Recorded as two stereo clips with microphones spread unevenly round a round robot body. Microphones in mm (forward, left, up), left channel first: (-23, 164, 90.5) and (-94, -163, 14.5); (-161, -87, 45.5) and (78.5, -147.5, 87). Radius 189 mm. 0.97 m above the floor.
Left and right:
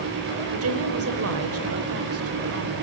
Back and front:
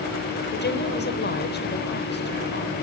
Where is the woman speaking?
150° right, 4.5 m.